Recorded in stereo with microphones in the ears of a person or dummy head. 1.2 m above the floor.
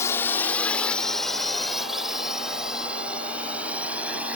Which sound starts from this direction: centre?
A drone, at 0.0 s.